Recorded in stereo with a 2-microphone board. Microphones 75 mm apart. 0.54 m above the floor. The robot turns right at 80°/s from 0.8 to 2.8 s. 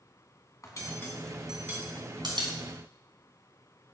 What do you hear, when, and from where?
0.6 s cutlery clinking: 45° left (ahead or behind), 2.5 m; by 2.5 s 85° right, 2.5 m